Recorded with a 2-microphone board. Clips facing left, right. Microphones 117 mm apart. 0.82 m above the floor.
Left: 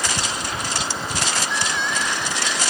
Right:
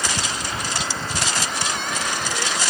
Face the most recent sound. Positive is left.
turn(degrees=-50)  # may be behind; listen again after turning